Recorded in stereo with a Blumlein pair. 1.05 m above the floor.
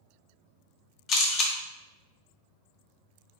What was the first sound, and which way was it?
A camera shutter, 30° left.